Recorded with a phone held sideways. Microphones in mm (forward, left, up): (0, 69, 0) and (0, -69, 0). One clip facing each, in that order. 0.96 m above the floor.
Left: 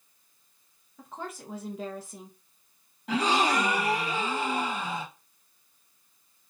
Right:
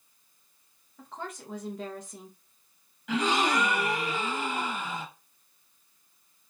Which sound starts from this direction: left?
A gasp, at 3.1 s.